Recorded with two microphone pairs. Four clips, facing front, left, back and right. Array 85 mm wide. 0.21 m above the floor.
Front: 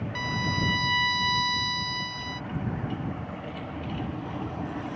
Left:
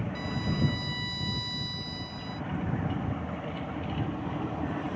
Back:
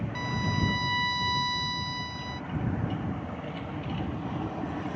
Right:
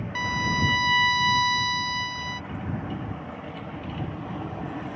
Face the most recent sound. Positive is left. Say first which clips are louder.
# right 7 dB, front 2 dB
turn(degrees=-85)